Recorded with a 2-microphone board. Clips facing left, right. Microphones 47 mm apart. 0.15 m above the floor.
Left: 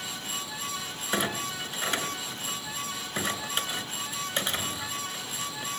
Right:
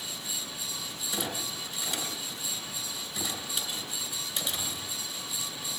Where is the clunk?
45° left (ahead or behind), 2.5 m.